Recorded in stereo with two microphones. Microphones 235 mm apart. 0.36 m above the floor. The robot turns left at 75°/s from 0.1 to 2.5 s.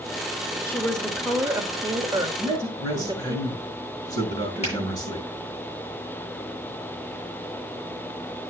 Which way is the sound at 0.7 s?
10° left (ahead or behind).